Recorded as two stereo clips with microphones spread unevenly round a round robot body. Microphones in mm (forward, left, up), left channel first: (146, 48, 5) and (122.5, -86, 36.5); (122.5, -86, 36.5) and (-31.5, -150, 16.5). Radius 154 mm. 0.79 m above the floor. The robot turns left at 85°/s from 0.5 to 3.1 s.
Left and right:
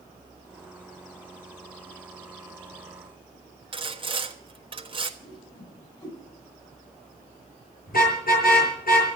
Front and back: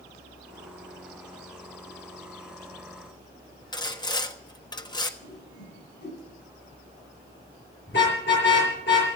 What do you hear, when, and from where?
3.7 s sawing: 45° right, 1.4 m
5.2 s a whoosh: 20° left, 8 m
7.9 s a car horn: 75° left, 7 m